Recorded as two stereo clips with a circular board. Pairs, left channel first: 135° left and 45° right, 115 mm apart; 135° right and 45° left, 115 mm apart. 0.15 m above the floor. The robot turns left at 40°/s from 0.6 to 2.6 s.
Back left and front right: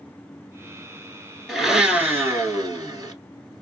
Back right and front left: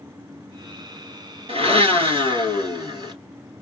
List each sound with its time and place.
1.5 s a blender: 50° left, 1.6 m; by 3.1 s 5° left, 1.6 m